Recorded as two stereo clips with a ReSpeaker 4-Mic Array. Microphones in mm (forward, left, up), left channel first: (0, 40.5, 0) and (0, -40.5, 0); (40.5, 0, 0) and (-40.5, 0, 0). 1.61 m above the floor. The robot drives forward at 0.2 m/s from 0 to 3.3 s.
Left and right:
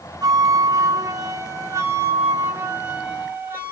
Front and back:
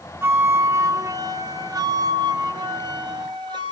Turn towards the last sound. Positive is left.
turn(degrees=-155)